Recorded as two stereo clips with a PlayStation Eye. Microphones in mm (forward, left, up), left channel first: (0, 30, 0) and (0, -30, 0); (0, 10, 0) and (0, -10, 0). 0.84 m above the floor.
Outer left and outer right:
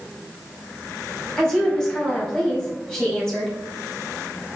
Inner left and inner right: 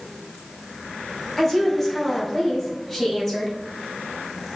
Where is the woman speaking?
10° left (ahead or behind), 4.5 m.